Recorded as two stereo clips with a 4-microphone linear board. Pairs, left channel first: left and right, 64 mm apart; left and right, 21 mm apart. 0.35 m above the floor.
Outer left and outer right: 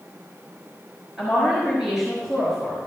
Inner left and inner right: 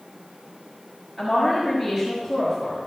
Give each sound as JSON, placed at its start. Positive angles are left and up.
{"t": 1.2, "sound": "a woman speaking", "side_deg": -5, "distance_m": 5.0}